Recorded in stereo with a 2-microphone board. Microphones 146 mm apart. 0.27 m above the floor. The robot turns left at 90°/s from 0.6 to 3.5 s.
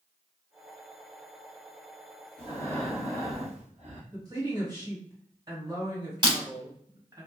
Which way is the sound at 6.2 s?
35° right (ahead or behind).